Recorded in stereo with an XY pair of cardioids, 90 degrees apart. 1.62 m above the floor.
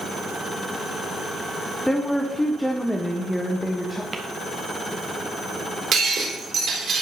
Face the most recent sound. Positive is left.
turn(degrees=-60)